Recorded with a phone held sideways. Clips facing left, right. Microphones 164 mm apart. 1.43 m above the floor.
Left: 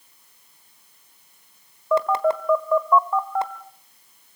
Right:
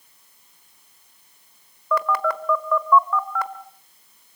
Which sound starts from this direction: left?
A phone buzzing, at 1.9 s.